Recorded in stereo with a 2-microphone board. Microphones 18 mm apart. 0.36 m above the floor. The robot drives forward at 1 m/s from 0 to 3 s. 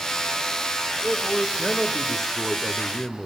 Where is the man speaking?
5° left (ahead or behind), 1.9 m; by 3.3 s 10° left (ahead or behind), 1.3 m.